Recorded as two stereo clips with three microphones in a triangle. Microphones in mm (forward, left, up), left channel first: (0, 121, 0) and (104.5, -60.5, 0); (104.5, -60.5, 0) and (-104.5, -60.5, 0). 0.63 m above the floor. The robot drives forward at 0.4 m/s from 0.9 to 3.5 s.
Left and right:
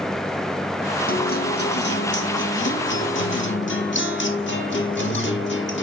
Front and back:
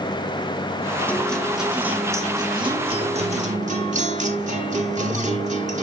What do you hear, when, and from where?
1.1 s a guitar: 80° left, 1.1 m; by 5.8 s 130° left, 1.4 m